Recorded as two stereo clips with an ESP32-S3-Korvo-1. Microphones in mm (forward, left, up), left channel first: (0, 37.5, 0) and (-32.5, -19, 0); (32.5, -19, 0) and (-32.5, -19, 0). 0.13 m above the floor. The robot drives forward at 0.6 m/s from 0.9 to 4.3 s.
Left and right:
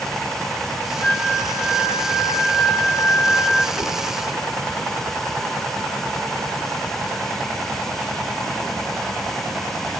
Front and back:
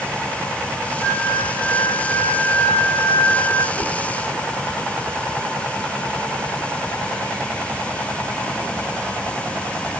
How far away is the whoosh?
About 5 m.